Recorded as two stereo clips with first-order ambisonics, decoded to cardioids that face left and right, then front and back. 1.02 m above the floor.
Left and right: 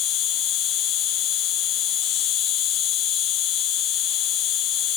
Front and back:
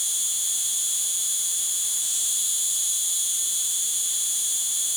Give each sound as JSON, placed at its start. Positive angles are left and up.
{"t": 0.0, "sound": "an insect", "azimuth_deg": 85, "distance_m": 1.2}